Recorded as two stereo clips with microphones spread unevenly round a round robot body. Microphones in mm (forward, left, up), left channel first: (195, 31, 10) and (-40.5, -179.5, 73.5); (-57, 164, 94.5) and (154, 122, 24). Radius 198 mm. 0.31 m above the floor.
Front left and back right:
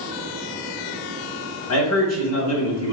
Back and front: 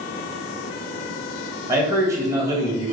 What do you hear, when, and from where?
1.7 s a man speaking: 50° left, 2 m